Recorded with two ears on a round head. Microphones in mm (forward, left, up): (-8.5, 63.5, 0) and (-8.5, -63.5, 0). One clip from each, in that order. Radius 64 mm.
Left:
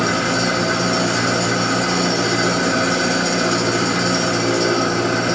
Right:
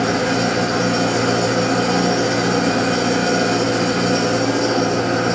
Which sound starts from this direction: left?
An engine running, at 0.0 s.